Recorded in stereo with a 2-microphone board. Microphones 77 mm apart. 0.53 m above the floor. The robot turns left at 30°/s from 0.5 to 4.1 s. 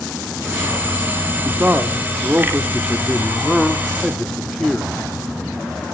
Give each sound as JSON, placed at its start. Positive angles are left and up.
{"t": 1.4, "sound": "a man speaking", "side_deg": -20, "distance_m": 0.6}